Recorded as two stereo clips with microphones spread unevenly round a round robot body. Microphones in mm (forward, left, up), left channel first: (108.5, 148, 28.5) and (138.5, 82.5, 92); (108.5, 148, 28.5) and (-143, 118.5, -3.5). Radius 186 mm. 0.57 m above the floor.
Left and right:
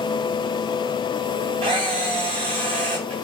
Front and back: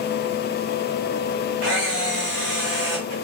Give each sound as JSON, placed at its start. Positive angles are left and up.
{"t": 1.6, "sound": "a camera shutter", "azimuth_deg": -85, "distance_m": 0.5}